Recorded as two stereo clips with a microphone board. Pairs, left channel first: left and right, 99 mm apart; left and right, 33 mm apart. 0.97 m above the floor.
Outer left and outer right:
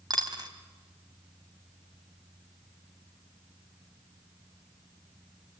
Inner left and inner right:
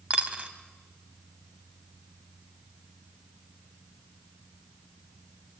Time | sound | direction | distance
0.1 | a dropped coin | 45° right (ahead or behind) | 2.0 m